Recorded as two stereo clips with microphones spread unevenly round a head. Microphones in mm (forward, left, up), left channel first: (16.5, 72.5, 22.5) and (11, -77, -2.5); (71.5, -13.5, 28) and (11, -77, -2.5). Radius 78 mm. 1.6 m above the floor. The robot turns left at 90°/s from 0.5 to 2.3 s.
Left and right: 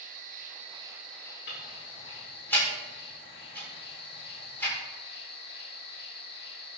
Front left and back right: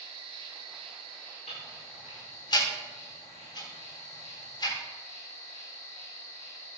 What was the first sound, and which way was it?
An insect, 130° right.